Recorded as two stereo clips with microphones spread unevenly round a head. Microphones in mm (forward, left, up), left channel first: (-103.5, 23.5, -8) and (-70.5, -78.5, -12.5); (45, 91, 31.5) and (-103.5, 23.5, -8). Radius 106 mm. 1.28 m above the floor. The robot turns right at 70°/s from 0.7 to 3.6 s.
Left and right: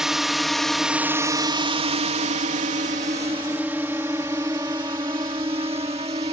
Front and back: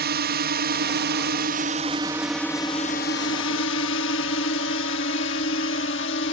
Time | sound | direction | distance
0.0 | a drone | 160° right | ?